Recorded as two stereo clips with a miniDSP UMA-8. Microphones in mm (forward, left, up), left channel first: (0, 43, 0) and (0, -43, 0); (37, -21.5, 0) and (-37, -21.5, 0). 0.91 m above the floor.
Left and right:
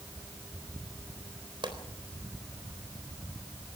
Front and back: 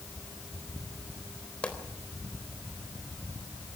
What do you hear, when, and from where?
1.6 s a pop: 75° right, 4 m